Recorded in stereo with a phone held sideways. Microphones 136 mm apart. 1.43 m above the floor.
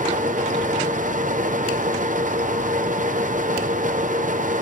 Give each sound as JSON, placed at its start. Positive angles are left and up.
{"t": 0.0, "sound": "a fan", "side_deg": -75, "distance_m": 0.8}